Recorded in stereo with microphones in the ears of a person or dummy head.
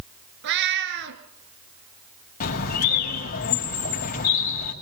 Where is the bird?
50° left (ahead or behind), 6 m.